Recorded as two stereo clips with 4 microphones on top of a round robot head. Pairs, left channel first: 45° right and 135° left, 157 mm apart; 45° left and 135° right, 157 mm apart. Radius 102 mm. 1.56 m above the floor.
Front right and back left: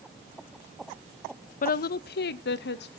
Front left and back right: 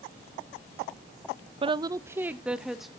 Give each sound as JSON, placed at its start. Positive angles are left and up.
{"t": 1.6, "sound": "a woman speaking", "azimuth_deg": -80, "distance_m": 0.6}